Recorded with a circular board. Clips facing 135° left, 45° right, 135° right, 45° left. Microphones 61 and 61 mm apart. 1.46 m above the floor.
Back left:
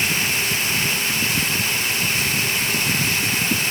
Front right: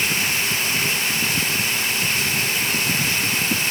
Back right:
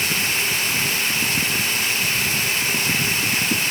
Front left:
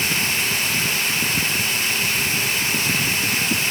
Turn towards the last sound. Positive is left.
No sound to turn to.